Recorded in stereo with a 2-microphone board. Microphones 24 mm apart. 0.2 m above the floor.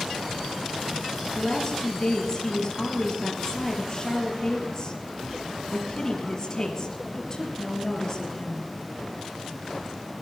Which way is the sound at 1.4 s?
30° left (ahead or behind).